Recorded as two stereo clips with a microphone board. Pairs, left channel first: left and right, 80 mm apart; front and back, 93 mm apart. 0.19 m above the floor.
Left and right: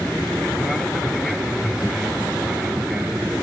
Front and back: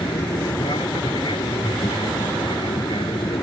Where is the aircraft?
10° left; by 3.4 s 10° right.